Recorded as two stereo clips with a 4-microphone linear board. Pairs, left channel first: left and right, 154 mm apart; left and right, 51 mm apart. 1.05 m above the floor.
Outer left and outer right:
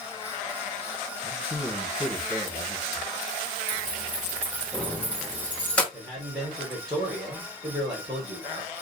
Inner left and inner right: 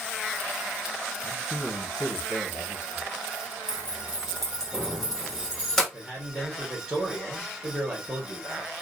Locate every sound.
1.2 s a man speaking: 40° left (ahead or behind), 0.8 m
3.7 s keys jangling: 10° left (ahead or behind), 0.6 m
5.9 s a man speaking: 25° right (ahead or behind), 0.9 m